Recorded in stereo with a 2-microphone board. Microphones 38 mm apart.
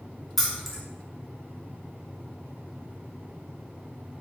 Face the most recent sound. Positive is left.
turn(degrees=5)  # may be behind; listen again after turning